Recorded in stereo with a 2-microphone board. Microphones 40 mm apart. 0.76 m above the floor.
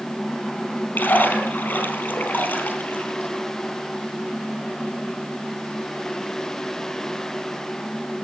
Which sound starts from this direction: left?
A splash, at 0.9 s.